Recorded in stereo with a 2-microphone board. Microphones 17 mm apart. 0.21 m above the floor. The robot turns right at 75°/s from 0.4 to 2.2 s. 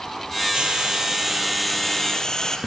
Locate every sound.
0.5 s frying: 85° right, 4 m; by 2.6 s 40° left, 4 m